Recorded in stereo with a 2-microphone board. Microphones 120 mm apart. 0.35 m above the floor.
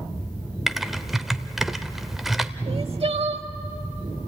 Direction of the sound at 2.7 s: 55° right (ahead or behind).